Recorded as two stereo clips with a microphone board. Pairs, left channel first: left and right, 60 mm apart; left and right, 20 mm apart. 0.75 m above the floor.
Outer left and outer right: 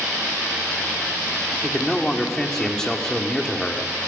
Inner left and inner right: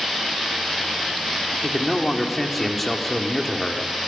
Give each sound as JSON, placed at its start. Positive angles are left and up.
{"t": 1.6, "sound": "a man speaking", "side_deg": 10, "distance_m": 1.9}